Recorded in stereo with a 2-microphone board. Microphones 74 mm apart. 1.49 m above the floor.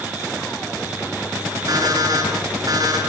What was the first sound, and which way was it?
An alarm clock, 55° right (ahead or behind).